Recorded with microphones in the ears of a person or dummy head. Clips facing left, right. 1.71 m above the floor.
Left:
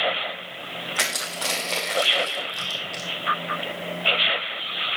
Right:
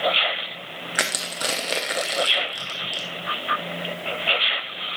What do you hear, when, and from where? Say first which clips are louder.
0.9 s crushing: right 4 dB; 15° right (ahead or behind), 0.7 m